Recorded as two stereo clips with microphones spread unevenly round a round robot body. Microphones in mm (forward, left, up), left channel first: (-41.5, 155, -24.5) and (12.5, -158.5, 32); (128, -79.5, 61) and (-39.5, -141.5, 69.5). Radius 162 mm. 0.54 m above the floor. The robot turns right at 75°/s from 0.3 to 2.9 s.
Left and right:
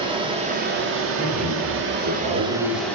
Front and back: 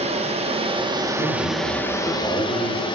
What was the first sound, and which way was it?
Running water, 160° right.